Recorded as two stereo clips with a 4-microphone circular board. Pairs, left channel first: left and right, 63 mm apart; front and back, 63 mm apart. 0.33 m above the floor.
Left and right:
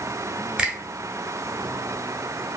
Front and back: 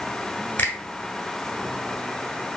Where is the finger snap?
30° right, 1.2 m.